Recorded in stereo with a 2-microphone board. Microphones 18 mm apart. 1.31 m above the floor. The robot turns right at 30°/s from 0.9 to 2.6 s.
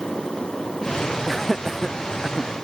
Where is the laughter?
5° left (ahead or behind), 0.8 m; by 2.5 s 30° right (ahead or behind), 0.8 m.